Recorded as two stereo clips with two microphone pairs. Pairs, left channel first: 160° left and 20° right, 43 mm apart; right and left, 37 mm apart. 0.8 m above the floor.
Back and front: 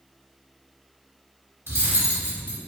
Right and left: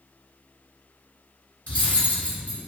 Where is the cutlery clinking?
45° right, 0.7 m.